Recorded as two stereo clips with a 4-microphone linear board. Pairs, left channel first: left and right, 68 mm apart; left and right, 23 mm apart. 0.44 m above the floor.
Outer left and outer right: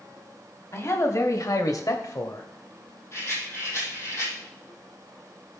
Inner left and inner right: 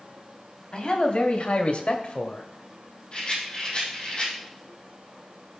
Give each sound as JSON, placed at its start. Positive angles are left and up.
{"t": 0.7, "sound": "a man speaking", "side_deg": 45, "distance_m": 2.5}
{"t": 3.1, "sound": "a rattle", "side_deg": 40, "distance_m": 5.5}